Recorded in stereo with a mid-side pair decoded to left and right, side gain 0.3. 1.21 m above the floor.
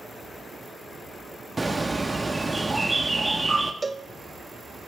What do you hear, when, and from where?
1.6 s a bird: 20° right, 1.1 m
3.8 s a cowbell: 30° right, 0.6 m